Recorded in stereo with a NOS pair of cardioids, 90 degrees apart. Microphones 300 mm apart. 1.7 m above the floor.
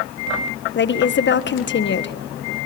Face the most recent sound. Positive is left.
turn(degrees=40)